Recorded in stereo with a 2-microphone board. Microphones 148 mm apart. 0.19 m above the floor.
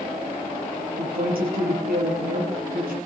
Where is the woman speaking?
75° right (ahead or behind), 5.5 m.